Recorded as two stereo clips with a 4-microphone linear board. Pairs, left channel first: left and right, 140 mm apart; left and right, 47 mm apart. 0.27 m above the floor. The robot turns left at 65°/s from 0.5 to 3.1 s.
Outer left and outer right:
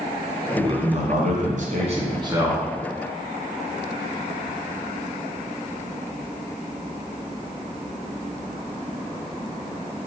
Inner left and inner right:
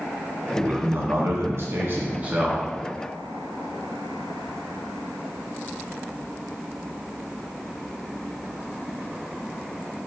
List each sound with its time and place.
0.6 s a man speaking: 35° right, 2.5 m; by 2.7 s 175° right, 2.5 m